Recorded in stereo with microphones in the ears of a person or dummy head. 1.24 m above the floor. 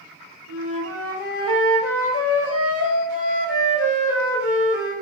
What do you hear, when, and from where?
0.5 s a flute: 75° left (ahead or behind), 1.7 m